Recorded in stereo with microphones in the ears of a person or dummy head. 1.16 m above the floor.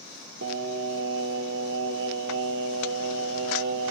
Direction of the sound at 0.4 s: 70° right (ahead or behind).